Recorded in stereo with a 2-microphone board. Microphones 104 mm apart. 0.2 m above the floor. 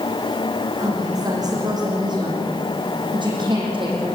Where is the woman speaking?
35° right (ahead or behind), 9 m; by 4.2 s 55° right (ahead or behind), 8 m.